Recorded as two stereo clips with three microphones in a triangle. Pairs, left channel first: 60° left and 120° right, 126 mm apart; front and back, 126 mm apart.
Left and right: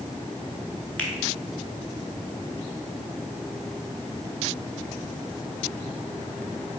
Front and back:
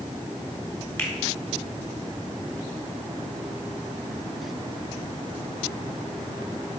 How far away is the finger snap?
About 1.0 m.